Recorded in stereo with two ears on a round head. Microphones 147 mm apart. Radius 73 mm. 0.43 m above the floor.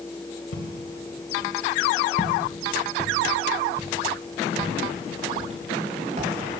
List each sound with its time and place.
0.5 s footsteps: 85° left, 3.5 m; by 6.6 s 45° right (ahead or behind), 6 m